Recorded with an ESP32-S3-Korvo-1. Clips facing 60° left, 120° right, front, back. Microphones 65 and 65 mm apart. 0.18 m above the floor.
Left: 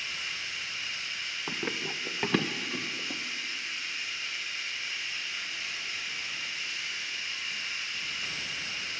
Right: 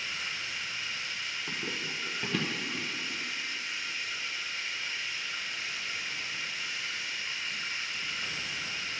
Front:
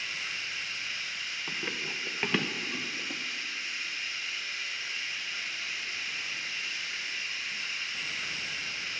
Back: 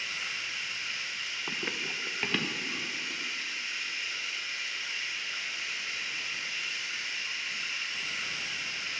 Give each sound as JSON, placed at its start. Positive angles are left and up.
{"t": 0.0, "sound": "running water", "azimuth_deg": -165, "distance_m": 3.0}
{"t": 1.5, "sound": "running footsteps", "azimuth_deg": 110, "distance_m": 0.7}